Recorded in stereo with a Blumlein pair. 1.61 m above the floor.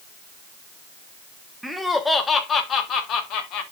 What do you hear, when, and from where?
1.6 s laughter: straight ahead, 1.3 m; by 3.6 s 40° left, 2 m